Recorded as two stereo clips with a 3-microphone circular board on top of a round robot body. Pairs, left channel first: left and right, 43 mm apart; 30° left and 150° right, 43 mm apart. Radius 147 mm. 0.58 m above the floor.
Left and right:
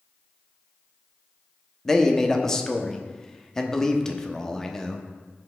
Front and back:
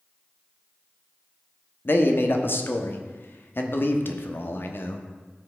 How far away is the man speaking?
About 1.1 m.